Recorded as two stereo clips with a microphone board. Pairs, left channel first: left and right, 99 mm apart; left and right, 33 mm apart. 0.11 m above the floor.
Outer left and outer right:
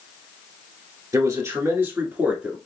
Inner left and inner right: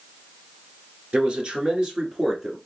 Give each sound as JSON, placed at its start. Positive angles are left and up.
{"t": 1.1, "sound": "a man speaking", "side_deg": -35, "distance_m": 1.6}